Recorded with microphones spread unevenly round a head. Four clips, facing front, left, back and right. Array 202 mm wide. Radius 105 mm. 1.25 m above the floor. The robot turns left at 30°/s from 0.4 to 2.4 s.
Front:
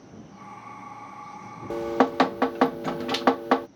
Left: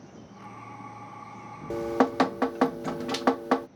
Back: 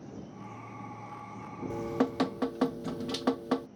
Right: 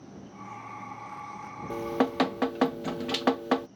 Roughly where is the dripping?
Ahead left.